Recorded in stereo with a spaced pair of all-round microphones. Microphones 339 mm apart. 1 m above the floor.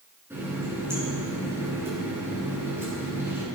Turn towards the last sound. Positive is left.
turn(degrees=-5)  # may be behind; listen again after turning